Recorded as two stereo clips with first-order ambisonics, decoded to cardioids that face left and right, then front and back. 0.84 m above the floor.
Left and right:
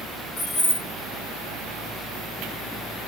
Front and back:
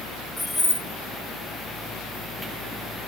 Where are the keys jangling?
85° left, 1.2 m.